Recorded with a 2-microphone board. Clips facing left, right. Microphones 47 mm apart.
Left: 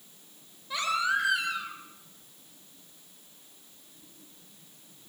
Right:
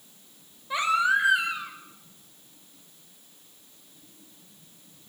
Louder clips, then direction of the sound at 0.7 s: Right 5 dB; 20° right (ahead or behind).